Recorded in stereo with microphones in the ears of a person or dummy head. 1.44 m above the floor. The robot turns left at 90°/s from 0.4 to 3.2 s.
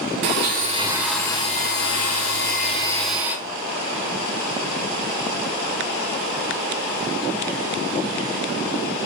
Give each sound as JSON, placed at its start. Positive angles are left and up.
{"t": 0.2, "sound": "a blender", "azimuth_deg": -115, "distance_m": 0.8}